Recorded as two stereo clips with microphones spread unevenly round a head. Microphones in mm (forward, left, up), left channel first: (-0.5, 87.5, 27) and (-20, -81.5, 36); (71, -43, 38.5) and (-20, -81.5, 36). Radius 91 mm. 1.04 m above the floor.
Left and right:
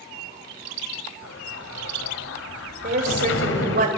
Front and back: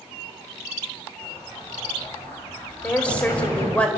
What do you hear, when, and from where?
1.2 s an explosion: 95° left, 2.5 m
2.8 s a woman speaking: 55° right, 4 m